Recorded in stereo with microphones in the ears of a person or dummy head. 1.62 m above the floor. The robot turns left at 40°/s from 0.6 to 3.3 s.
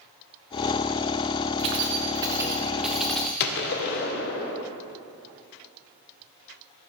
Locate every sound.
1.6 s keys jangling: 20° right (ahead or behind), 0.5 m; by 3.3 s 5° left (ahead or behind), 0.5 m
3.4 s a gunshot: 50° left (ahead or behind), 0.8 m